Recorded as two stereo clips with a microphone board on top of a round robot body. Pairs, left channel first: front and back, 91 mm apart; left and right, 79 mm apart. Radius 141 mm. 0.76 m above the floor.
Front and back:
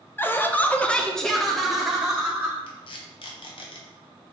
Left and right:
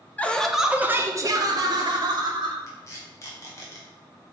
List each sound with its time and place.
0.2 s laughter: 40° left, 0.7 m; by 2.6 s 100° right, 1.4 m
2.7 s tape being pulled: 30° left, 0.6 m